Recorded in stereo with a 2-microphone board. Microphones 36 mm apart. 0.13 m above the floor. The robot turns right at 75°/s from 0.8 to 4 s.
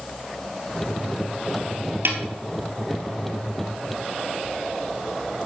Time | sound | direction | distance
2.0 | a snare drum | 65° right (ahead or behind) | 1.6 m